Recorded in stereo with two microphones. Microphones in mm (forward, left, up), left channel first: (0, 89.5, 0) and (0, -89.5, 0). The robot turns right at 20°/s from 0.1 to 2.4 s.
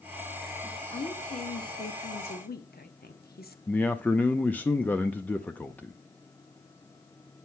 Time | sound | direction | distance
0.9 | a woman speaking | 40° left (ahead or behind) | 1.0 m
3.7 | a man speaking | 10° left (ahead or behind) | 0.6 m